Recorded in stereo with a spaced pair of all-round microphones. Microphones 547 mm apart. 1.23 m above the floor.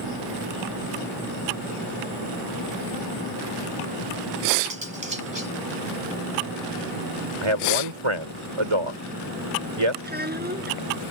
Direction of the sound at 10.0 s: 15° right (ahead or behind).